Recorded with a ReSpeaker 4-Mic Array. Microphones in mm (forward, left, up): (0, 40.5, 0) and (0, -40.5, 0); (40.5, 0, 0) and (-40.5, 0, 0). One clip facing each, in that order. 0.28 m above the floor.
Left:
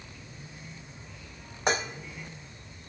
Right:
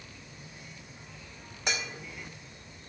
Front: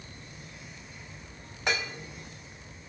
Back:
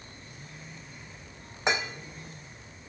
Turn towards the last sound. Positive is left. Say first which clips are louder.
# left 7 dB, back 2 dB
turn(degrees=120)